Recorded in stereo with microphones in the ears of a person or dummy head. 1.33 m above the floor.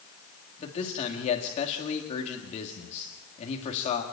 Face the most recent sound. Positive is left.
turn(degrees=35)  # may be behind; listen again after turning